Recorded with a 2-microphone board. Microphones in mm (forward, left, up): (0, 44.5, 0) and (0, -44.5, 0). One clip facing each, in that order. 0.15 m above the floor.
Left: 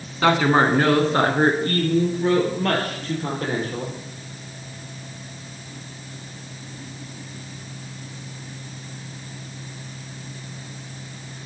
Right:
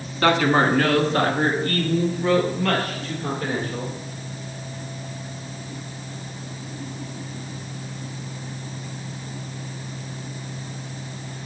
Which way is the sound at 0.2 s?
10° left (ahead or behind).